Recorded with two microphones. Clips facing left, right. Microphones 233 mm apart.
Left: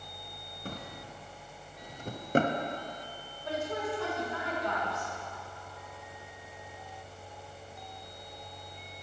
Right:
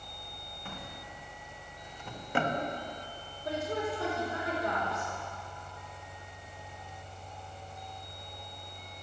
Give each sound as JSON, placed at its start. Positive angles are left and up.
{"t": 0.7, "sound": "a drawer", "side_deg": 40, "distance_m": 0.5}
{"t": 3.5, "sound": "a woman speaking", "side_deg": -40, "distance_m": 3.0}